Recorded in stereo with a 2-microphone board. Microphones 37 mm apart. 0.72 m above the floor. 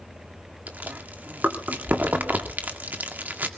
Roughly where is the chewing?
Right.